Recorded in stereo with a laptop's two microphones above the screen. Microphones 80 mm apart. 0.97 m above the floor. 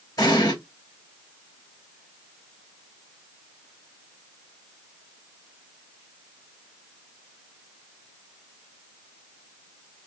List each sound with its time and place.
0.2 s an explosion: 50° left (ahead or behind), 3 m